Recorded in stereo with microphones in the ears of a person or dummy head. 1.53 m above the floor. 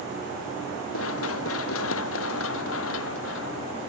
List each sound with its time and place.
0.9 s running footsteps: 85° left; by 3.9 s 75° left (ahead or behind)